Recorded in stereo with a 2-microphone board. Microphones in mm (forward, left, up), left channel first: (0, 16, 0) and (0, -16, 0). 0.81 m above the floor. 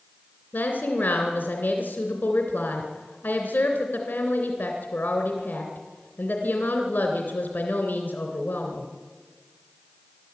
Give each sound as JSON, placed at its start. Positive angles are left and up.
{"t": 0.5, "sound": "a woman speaking", "side_deg": 70, "distance_m": 3.0}